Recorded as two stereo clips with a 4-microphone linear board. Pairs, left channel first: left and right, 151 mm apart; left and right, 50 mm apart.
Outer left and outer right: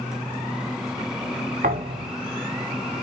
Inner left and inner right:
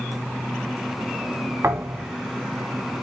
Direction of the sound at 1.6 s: 80° right.